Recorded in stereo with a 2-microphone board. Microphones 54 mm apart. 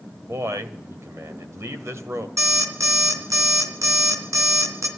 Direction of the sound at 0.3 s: 60° right (ahead or behind).